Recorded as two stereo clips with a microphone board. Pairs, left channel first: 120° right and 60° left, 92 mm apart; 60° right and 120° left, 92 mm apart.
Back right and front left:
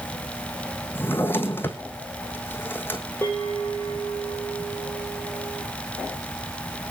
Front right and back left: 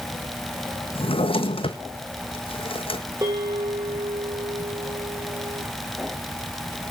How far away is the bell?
About 9.5 m.